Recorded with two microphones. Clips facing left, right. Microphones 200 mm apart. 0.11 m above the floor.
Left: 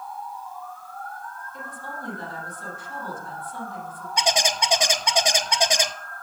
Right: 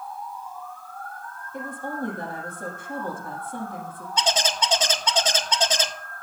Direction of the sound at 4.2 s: 15° left (ahead or behind).